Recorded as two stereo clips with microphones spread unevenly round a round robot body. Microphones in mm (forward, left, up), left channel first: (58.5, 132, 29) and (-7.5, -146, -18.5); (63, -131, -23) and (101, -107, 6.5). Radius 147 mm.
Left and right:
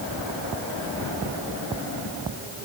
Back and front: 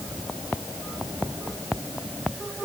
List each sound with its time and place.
Only background noise.